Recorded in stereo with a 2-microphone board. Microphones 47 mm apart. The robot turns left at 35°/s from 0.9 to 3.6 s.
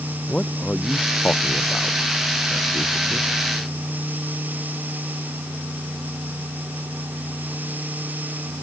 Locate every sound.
0.3 s a man speaking: 25° left (ahead or behind); by 3.3 s 65° left (ahead or behind)